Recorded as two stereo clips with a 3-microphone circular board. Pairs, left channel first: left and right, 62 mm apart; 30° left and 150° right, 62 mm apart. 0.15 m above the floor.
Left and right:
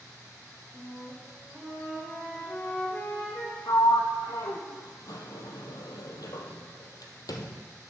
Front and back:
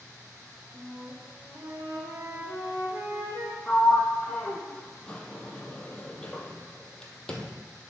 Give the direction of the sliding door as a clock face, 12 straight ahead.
8 o'clock.